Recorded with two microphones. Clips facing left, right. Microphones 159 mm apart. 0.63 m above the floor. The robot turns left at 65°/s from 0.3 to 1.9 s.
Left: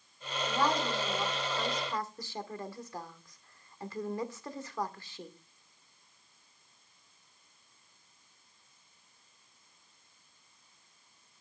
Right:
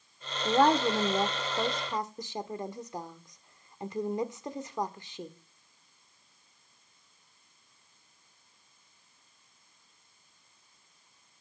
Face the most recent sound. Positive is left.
turn(degrees=-20)  # may be behind; listen again after turning